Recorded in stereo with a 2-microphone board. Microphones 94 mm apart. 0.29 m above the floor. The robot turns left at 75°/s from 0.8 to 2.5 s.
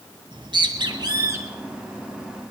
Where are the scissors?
I don't hear scissors.